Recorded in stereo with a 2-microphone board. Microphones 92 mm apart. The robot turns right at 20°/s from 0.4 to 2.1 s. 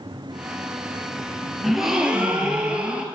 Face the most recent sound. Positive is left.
turn(degrees=-10)  # may be behind; listen again after turning